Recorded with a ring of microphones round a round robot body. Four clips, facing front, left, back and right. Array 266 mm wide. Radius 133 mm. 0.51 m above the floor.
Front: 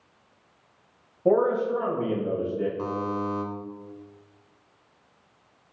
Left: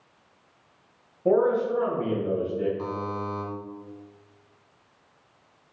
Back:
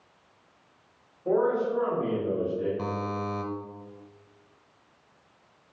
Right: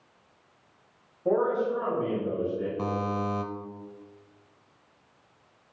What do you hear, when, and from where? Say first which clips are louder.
1.2 s a man speaking: left 4 dB, front 3 dB; 30° left, 3 m
2.8 s a buzzer: right 2 dB, front 3 dB; 120° right, 0.9 m